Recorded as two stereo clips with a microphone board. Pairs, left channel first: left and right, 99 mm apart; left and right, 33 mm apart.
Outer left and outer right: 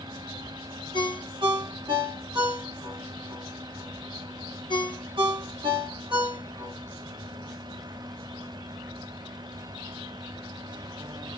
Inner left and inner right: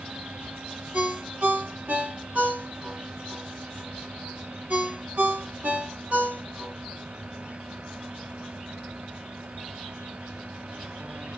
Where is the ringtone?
55° right (ahead or behind), 2.5 m.